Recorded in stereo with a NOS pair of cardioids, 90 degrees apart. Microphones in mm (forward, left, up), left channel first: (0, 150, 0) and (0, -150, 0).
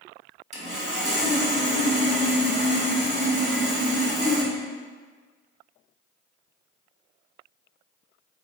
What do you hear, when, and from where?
0.5 s sawing: 25° right, 1.4 m